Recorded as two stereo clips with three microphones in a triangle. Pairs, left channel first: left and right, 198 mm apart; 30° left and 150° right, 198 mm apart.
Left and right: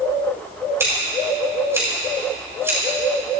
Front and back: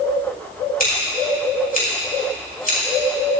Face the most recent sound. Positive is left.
turn(degrees=-15)